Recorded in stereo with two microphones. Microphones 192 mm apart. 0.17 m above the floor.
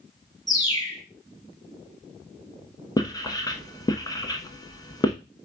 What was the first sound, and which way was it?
A bird, 20° left (ahead or behind).